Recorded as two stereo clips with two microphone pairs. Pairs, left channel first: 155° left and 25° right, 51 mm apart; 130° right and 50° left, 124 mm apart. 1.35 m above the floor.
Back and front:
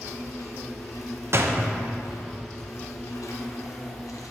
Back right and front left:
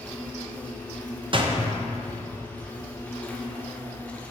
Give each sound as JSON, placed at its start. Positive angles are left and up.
{"t": 0.0, "sound": "an insect", "azimuth_deg": 150, "distance_m": 1.0}
{"t": 1.3, "sound": "a door slam", "azimuth_deg": 10, "distance_m": 0.7}